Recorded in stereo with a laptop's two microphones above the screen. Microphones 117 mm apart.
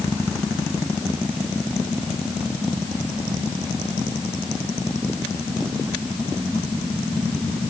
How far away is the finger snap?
I don't hear a finger snap.